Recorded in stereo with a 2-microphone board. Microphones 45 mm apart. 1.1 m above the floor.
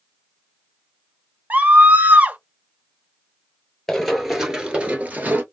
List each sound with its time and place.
1.5 s a scream: 40° right (ahead or behind), 0.8 m
3.9 s running footsteps: 10° left (ahead or behind), 1.3 m; by 5.4 s 40° right (ahead or behind), 1.3 m